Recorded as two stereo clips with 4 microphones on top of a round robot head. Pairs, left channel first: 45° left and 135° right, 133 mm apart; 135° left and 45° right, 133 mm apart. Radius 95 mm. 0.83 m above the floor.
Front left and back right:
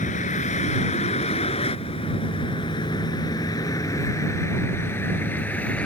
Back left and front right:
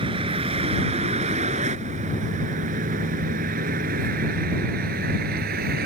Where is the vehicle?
10° left; by 5.9 s 35° right.